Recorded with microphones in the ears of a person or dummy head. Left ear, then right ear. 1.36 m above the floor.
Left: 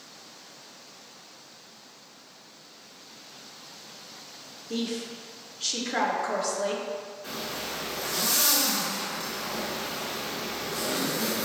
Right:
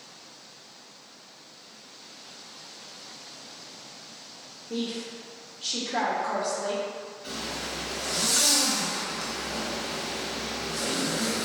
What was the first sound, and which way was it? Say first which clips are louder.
A woman speaking: left 1 dB; 40° left (ahead or behind).